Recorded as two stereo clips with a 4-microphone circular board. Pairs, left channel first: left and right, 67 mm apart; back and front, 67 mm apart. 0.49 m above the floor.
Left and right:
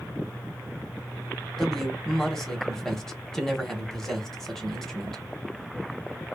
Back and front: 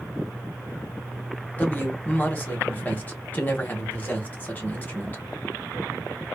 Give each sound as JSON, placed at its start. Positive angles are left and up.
{"t": 1.6, "sound": "a man speaking", "azimuth_deg": 165, "distance_m": 0.8}